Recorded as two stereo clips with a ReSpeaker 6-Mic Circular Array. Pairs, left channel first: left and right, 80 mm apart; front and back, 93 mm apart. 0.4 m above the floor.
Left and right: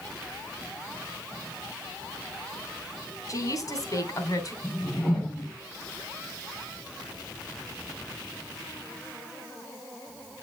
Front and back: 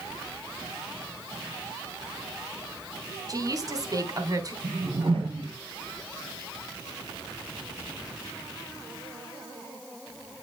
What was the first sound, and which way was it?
A woman speaking, 135° left.